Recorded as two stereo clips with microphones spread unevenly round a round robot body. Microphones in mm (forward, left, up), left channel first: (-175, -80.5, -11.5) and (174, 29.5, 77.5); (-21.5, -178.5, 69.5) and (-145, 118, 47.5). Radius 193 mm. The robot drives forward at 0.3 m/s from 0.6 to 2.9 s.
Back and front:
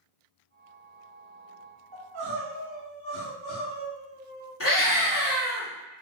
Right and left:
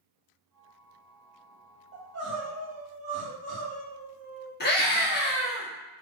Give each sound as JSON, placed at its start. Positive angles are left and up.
{"t": 1.9, "sound": "crying", "azimuth_deg": 70, "distance_m": 1.5}
{"t": 4.6, "sound": "a scream", "azimuth_deg": -125, "distance_m": 1.3}